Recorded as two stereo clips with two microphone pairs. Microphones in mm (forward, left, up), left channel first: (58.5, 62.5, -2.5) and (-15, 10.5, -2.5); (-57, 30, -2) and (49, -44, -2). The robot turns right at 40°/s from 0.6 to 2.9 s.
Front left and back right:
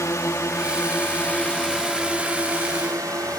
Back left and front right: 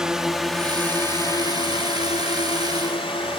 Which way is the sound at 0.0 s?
45° left.